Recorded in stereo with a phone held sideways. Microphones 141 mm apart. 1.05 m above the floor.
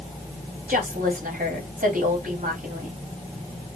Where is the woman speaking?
75° right (ahead or behind), 3.5 m.